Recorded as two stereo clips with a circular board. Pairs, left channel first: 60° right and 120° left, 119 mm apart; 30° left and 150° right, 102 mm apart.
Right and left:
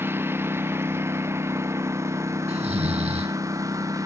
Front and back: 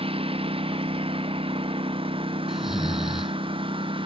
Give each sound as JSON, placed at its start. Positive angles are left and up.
{"t": 0.0, "sound": "a lawn mower", "azimuth_deg": -170}
{"t": 2.5, "sound": "snoring", "azimuth_deg": 125}